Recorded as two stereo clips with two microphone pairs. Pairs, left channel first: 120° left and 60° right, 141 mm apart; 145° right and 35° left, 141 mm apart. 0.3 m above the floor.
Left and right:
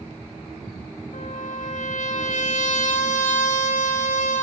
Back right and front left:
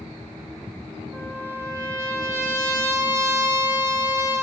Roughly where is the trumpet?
Left.